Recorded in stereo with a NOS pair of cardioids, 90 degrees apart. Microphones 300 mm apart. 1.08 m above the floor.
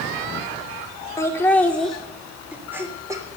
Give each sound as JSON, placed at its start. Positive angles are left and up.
{"t": 1.2, "sound": "laughter", "azimuth_deg": 10, "distance_m": 2.5}